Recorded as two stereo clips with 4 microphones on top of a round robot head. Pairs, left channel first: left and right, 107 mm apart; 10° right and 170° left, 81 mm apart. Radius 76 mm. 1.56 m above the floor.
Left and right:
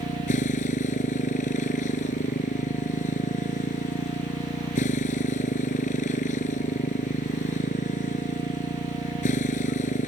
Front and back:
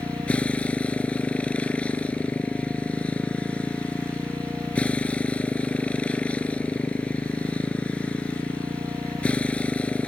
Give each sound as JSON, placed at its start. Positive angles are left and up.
{"t": 0.0, "sound": "a motorcycle", "azimuth_deg": 65}